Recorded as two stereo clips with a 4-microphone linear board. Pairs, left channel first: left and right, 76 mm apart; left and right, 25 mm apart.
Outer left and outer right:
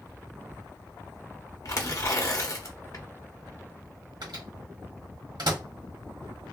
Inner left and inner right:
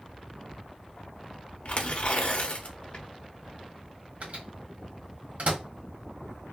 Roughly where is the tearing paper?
Left.